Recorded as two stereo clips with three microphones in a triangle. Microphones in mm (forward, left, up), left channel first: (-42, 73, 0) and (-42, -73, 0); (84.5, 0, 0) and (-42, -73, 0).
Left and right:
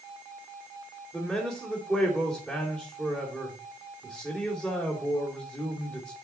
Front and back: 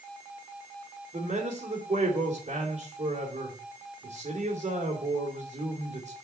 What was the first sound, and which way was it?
A man speaking, straight behind.